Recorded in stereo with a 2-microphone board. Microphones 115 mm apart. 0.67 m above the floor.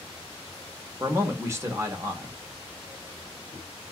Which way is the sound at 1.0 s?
25° right (ahead or behind).